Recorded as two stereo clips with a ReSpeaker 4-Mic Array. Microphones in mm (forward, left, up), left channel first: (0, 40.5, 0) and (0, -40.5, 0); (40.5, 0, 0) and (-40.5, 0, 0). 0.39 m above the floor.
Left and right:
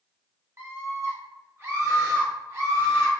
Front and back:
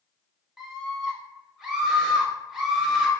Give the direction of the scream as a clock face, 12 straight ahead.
3 o'clock.